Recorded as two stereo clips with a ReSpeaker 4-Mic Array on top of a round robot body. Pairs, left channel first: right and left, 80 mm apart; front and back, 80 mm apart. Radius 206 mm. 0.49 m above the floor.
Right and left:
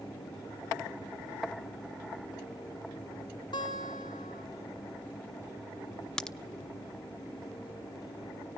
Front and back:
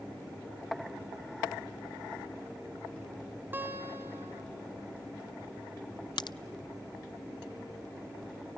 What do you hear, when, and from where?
3.5 s a guitar: 115° right, 2 m
6.2 s a crack: 10° right, 0.7 m